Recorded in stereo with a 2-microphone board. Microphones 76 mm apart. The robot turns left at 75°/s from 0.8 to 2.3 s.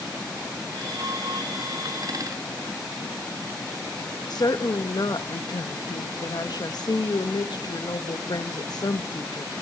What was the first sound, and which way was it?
A woman speaking, 60° left (ahead or behind).